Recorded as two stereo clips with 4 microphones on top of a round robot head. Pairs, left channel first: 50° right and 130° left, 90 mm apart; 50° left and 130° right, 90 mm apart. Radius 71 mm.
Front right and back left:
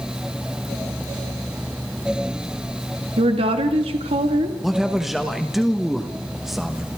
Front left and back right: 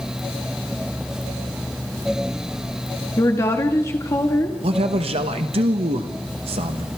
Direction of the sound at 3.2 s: 110° left.